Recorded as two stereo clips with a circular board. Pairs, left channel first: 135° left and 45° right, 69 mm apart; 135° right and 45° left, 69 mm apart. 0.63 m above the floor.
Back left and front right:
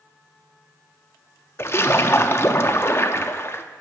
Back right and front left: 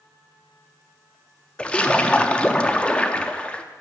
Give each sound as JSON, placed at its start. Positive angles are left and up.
{"t": 1.6, "sound": "a splash", "azimuth_deg": 165, "distance_m": 0.5}